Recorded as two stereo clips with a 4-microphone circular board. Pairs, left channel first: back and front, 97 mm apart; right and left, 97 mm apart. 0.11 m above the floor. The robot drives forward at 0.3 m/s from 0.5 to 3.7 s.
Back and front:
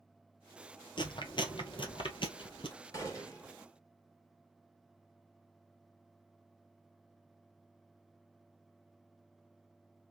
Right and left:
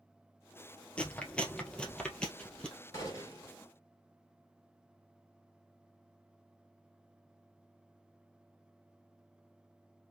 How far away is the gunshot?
About 2.5 m.